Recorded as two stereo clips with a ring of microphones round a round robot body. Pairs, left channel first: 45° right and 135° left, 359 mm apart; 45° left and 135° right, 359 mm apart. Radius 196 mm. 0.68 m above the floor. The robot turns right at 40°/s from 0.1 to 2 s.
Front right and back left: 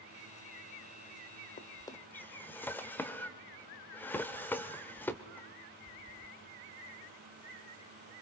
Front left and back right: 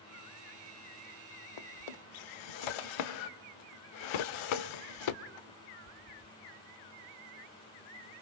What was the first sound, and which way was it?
A drawer, 25° left.